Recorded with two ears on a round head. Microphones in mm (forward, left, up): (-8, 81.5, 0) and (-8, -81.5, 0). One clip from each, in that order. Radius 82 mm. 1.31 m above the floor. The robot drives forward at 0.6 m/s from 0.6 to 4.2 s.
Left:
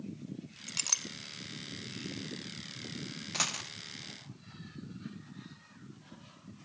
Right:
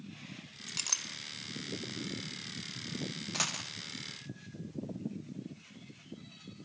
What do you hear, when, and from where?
0.7 s a clink: 10° left (ahead or behind), 0.8 m
3.3 s a dropped coin: 5° left (ahead or behind), 0.8 m